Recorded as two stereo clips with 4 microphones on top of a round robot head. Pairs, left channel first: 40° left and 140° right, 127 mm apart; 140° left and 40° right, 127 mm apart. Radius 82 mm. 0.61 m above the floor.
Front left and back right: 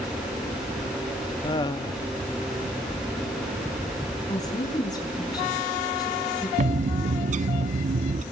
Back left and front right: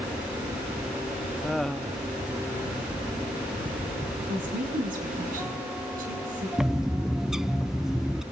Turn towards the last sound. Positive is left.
turn(degrees=-125)